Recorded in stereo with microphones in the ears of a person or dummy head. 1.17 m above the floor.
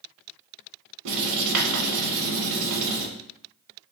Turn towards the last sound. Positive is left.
turn(degrees=-65)  # may be behind; listen again after turning